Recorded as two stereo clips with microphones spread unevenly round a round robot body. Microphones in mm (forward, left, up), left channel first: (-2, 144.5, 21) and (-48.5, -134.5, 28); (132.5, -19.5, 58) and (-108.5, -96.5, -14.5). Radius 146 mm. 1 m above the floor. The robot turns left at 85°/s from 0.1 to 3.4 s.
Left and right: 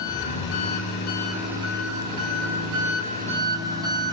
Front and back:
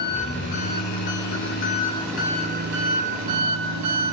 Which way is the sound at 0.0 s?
105° left.